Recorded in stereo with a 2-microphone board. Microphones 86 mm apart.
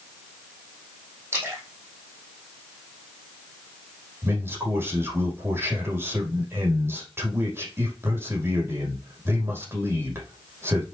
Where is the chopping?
I don't hear chopping.